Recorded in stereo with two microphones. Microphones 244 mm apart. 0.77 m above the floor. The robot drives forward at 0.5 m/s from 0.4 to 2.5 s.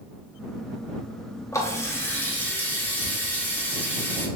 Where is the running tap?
10° left (ahead or behind), 0.7 m; by 4.3 s 5° left (ahead or behind), 1.2 m.